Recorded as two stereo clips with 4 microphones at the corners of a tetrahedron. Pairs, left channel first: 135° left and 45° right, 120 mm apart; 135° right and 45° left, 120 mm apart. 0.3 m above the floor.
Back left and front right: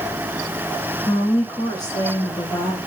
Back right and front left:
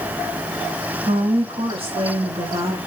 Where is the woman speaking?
80° left, 3 m.